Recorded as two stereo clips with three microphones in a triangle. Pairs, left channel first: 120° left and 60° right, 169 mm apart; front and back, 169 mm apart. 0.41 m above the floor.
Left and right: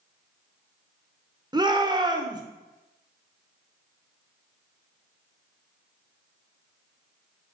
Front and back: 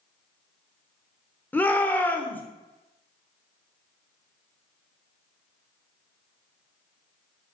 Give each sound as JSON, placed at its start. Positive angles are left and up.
{"t": 1.5, "sound": "a shout", "azimuth_deg": -65, "distance_m": 0.8}